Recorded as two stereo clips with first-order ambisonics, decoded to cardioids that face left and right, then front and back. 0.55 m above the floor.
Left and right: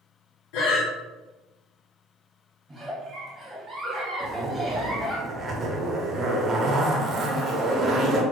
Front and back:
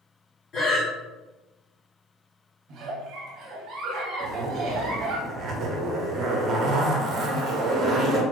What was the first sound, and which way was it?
Breathing, 65° left.